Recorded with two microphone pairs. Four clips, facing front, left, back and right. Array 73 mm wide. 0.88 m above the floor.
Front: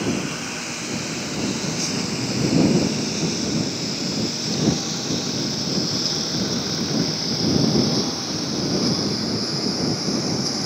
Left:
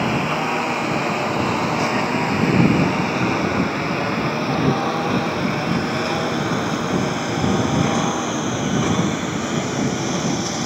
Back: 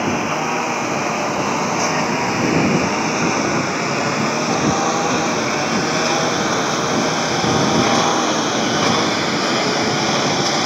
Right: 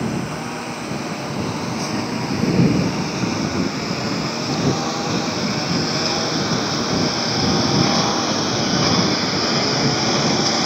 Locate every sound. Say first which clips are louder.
0.0 s a lawn mower: left 4 dB, back 6 dB; 155° left; by 10.7 s 160° right